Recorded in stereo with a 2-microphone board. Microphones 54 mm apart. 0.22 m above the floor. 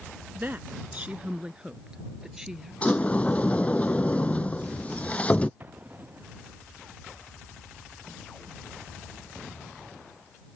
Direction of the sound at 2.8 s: 25° left (ahead or behind).